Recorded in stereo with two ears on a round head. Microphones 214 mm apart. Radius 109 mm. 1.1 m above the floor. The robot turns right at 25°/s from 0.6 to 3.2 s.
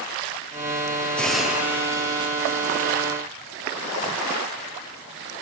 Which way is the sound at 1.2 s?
175° left.